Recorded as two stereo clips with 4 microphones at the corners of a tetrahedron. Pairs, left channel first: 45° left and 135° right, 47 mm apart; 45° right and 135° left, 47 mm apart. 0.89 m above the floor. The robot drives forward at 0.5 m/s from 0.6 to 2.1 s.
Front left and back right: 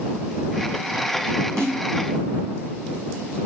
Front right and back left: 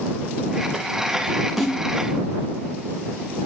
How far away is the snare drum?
About 3 m.